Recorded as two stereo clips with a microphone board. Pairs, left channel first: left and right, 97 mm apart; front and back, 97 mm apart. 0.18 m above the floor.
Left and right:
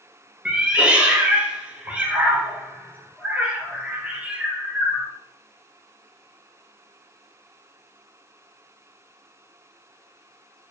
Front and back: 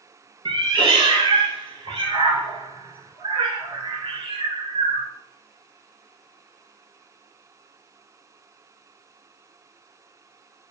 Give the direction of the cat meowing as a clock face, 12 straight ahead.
6 o'clock.